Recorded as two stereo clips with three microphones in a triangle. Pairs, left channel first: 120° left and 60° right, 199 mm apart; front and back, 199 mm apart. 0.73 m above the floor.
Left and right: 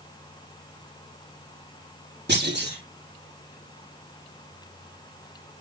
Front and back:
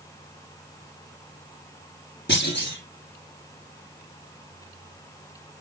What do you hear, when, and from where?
2.3 s a clunk: 30° right, 7 m